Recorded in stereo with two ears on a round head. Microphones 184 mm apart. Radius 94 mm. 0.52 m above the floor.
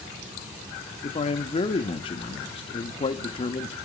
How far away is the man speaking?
About 0.7 m.